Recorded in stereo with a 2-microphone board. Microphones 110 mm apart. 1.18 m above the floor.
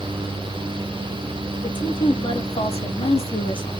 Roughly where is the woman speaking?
Left.